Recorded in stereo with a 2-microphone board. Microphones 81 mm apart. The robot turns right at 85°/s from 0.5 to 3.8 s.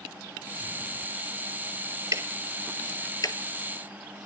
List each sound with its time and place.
2.1 s ticking: 40° right (ahead or behind), 1.3 m; by 3.4 s 60° left (ahead or behind), 1.3 m